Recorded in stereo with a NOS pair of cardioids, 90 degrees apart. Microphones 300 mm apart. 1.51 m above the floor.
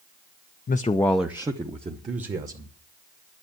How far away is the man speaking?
About 0.7 m.